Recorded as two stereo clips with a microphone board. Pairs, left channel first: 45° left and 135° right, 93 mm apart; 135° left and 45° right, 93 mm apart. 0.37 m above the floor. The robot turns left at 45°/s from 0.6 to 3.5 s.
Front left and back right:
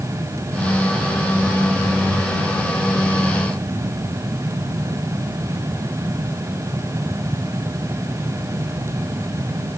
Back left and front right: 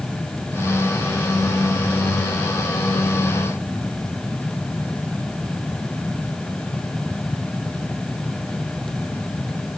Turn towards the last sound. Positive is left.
No sound to turn to.